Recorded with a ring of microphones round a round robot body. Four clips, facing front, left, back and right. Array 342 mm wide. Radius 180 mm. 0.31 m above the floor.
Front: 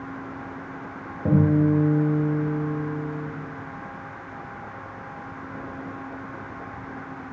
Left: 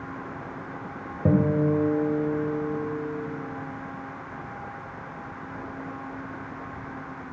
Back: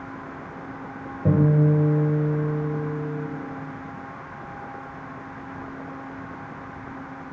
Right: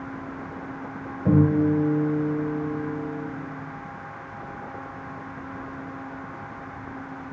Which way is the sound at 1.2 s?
90° left.